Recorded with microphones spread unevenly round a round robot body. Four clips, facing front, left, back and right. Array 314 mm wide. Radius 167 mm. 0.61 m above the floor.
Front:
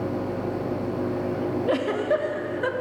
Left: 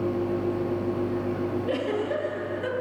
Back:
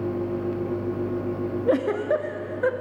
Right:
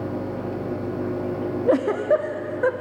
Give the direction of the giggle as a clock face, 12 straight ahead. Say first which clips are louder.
Right 12 dB, back 2 dB; 3 o'clock.